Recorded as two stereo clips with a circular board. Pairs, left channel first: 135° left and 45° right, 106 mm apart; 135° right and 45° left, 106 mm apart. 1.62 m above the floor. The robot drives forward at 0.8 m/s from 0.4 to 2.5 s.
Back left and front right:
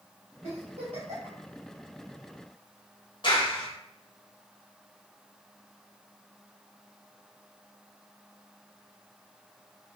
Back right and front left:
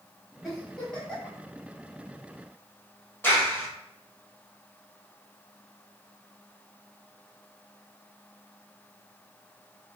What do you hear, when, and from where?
0.4 s a giggle: 45° right, 2 m; by 1.4 s 60° right, 1.7 m
3.2 s a clap: 160° left, 1.3 m